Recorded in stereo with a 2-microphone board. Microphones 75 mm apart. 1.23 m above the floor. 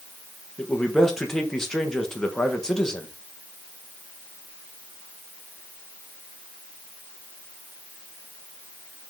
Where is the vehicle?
No vehicle in this recording.